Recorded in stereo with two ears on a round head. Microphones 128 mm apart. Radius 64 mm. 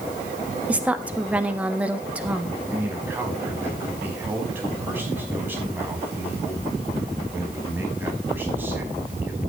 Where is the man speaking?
15° right (ahead or behind), 5.5 m.